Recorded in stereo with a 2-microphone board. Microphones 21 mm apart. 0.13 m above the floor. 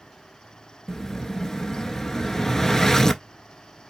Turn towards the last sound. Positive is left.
turn(degrees=20)  # may be behind; listen again after turning